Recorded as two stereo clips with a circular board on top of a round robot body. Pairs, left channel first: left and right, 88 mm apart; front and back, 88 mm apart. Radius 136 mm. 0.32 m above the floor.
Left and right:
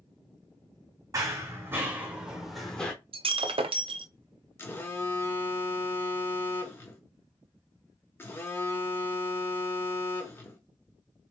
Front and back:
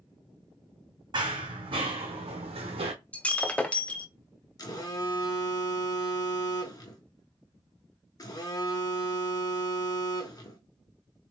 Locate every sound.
1.1 s running footsteps: 145° right, 1.3 m; by 2.9 s 165° left, 0.9 m
3.1 s breaking glass: 75° right, 0.6 m
4.6 s a phone buzzing: 30° left, 1.4 m